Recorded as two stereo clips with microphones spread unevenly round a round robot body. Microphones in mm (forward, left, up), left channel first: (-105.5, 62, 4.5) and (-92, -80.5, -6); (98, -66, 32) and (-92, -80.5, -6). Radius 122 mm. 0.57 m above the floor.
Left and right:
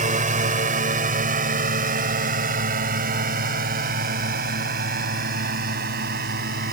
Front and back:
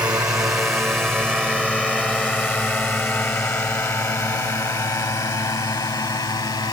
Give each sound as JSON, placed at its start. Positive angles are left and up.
{"t": 0.0, "sound": "a drone", "azimuth_deg": -100}